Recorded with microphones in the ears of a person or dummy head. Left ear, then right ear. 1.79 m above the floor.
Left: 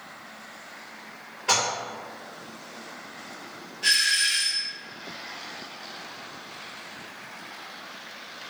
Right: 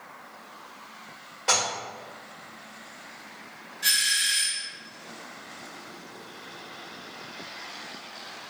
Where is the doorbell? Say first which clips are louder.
Left 2 dB; 35° right (ahead or behind), 1.0 m.